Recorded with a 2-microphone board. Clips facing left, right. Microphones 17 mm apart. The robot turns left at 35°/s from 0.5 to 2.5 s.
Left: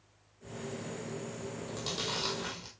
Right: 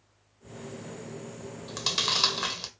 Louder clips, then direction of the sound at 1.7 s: Right 10 dB; 35° right (ahead or behind).